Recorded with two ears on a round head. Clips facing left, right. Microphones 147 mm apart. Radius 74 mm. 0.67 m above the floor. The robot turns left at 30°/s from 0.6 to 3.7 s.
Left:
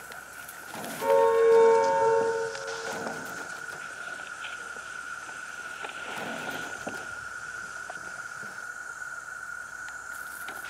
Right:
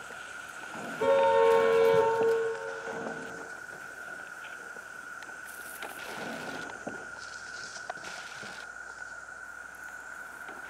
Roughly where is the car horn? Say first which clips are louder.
Left 2 dB; ahead right.